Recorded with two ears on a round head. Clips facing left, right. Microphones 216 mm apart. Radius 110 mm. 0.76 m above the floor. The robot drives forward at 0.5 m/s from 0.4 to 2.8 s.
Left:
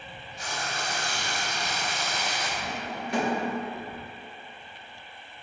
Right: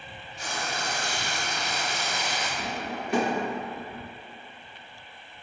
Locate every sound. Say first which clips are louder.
0.4 s frying: right 1 dB; 75° right (ahead or behind), 1.1 m; by 2.5 s 45° right (ahead or behind), 1.6 m
2.6 s a drawer: right 2 dB; 80° right, 0.6 m; by 3.4 s 70° right (ahead or behind), 0.6 m